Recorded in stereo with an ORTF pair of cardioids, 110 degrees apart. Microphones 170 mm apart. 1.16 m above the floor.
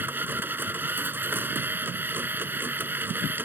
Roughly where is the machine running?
Ahead.